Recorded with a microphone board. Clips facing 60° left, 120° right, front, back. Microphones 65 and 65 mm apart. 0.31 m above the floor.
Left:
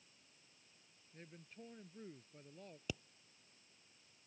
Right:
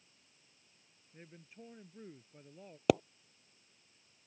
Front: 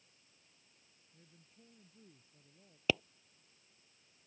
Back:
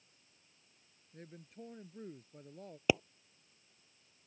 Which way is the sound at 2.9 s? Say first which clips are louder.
Right 20 dB, back 3 dB; 105° right.